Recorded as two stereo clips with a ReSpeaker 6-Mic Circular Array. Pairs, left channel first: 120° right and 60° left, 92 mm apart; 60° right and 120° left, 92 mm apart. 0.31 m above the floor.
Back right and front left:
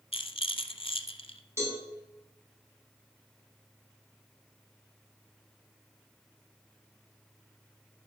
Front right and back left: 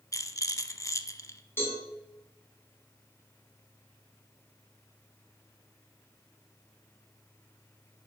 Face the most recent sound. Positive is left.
turn(degrees=5)